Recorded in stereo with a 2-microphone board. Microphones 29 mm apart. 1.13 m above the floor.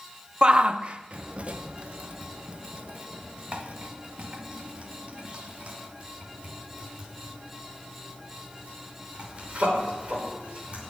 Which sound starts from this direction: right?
A shout, at 0.4 s.